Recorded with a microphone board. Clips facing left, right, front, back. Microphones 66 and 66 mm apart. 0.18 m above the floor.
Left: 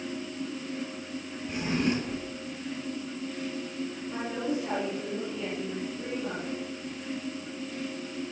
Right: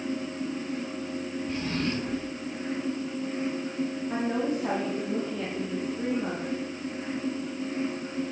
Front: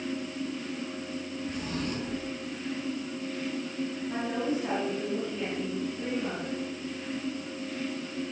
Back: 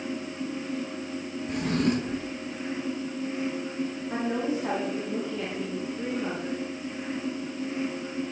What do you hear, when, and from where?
1.5 s a drawer: 165° left, 1.6 m
4.1 s a woman speaking: 110° right, 7 m